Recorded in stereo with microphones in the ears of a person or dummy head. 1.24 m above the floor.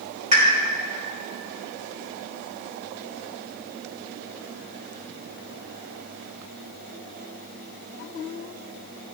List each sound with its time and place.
0.3 s a pop: 35° right (ahead or behind), 3.5 m